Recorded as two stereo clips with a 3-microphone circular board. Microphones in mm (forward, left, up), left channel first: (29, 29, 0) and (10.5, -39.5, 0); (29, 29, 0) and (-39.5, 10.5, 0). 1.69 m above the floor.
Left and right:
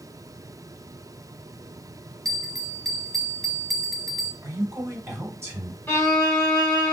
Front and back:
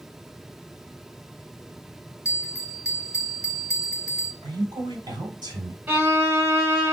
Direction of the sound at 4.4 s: 150° right.